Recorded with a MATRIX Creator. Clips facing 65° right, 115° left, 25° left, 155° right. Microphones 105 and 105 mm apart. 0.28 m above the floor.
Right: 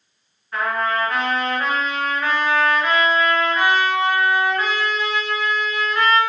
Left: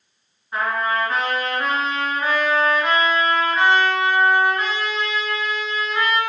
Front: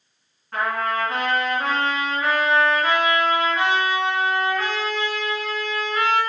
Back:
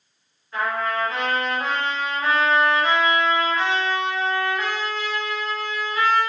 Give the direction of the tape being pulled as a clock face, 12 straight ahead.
No tape being pulled in this recording.